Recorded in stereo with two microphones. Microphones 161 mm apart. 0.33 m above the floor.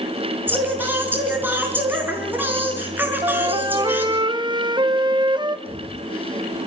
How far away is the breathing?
About 2.5 m.